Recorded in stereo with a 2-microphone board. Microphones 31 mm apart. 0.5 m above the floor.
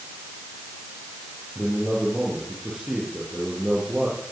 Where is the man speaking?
30° right (ahead or behind), 9.5 m.